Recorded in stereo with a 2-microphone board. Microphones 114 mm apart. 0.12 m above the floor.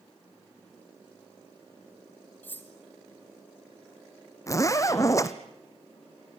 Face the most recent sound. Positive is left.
turn(degrees=30)  # may be behind; listen again after turning